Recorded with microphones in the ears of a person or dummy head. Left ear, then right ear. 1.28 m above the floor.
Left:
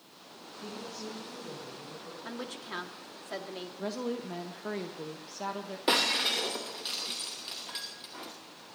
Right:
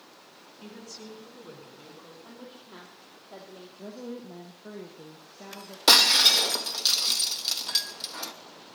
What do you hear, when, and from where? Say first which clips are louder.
0.6 s a woman speaking: left 3 dB; 50° right (ahead or behind), 10 m; by 2.1 s 60° right (ahead or behind), 11 m
2.2 s a woman speaking: left 7 dB; 65° left (ahead or behind), 2 m
3.8 s a woman speaking: left 5 dB; 45° left (ahead or behind), 1.5 m
5.9 s breaking glass: right 9 dB; 50° right (ahead or behind), 0.8 m